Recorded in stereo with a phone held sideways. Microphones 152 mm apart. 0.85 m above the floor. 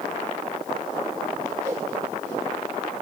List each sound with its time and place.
1.6 s a whoosh: 20° right (ahead or behind), 3.5 m